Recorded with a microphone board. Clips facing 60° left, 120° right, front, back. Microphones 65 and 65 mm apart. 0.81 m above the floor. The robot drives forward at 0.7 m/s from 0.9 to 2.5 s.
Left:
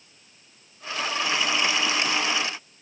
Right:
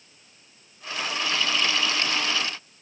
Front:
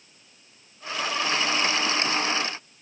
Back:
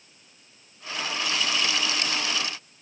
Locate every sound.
Only background noise.